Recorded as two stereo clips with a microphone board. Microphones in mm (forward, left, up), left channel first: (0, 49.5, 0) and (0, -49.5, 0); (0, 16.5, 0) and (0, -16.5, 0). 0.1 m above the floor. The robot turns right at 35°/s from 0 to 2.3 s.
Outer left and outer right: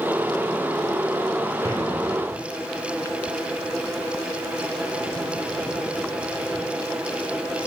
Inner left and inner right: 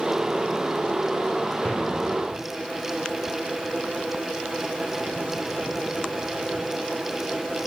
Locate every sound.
1.6 s an explosion: 35° left (ahead or behind), 2.5 m; by 2.4 s 20° left (ahead or behind), 2.5 m